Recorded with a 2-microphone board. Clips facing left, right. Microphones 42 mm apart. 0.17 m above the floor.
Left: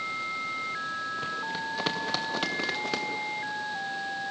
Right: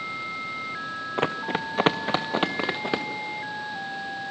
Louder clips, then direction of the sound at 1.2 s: Right 5 dB; 60° right (ahead or behind).